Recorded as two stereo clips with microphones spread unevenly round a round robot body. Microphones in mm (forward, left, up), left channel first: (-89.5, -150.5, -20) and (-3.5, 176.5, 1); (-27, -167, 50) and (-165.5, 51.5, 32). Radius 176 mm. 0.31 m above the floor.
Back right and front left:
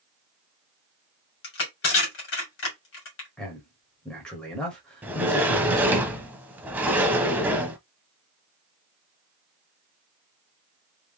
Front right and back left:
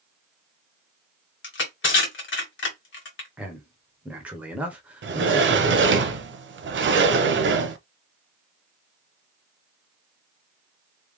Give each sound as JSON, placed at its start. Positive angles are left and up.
{"t": 1.4, "sound": "crushing", "azimuth_deg": -75, "distance_m": 1.9}
{"t": 3.4, "sound": "a man speaking", "azimuth_deg": -175, "distance_m": 1.4}
{"t": 5.0, "sound": "a sliding door", "azimuth_deg": 160, "distance_m": 0.9}